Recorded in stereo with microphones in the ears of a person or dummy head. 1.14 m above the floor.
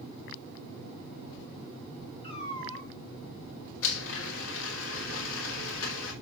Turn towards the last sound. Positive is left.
turn(degrees=85)